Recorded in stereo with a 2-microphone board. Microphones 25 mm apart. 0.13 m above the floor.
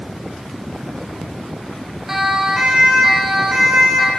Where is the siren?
10° right (ahead or behind), 5 m; by 4.1 s 5° right (ahead or behind), 7 m.